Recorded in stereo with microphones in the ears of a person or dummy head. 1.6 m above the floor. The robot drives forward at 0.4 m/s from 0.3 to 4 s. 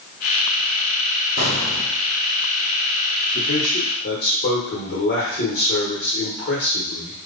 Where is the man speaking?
50° left (ahead or behind), 1.1 m; by 7.2 s 45° left (ahead or behind), 1.3 m.